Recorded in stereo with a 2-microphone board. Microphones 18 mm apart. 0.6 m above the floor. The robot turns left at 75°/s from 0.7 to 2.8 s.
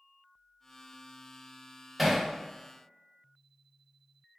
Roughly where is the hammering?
Centre.